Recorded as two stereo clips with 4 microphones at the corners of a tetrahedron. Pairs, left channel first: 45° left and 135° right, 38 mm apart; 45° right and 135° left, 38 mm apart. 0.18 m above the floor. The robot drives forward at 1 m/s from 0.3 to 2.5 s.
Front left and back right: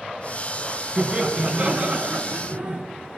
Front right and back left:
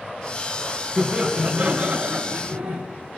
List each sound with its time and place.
1.0 s laughter: 170° right, 1.5 m; by 2.8 s 175° right, 2.5 m